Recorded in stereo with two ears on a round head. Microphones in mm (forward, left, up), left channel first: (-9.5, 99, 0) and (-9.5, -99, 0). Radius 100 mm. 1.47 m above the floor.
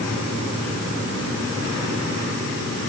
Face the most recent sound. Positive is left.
No sound to turn to.